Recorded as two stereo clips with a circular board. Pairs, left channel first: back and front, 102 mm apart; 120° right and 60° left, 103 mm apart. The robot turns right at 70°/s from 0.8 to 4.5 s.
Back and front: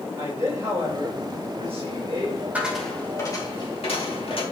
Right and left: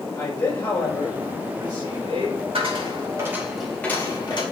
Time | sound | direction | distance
0.2 | a man speaking | 50° right | 4.5 m
2.5 | a dropped coin | 75° left | 2.5 m